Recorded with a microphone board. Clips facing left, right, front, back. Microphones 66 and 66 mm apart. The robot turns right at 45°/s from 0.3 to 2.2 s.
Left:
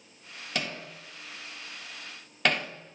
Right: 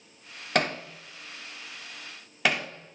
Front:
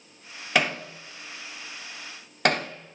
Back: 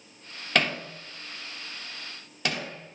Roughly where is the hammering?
Right.